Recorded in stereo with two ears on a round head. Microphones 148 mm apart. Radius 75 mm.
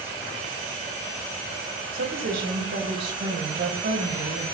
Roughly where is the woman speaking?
Right.